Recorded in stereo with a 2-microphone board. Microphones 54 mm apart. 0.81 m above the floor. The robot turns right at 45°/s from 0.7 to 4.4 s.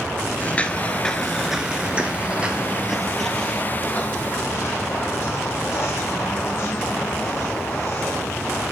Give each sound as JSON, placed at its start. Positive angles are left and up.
{"t": 0.4, "sound": "footsteps", "side_deg": 30, "distance_m": 0.9}